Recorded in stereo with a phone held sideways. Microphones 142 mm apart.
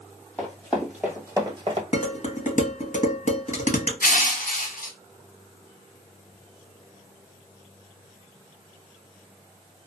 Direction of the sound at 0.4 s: 10° left (ahead or behind).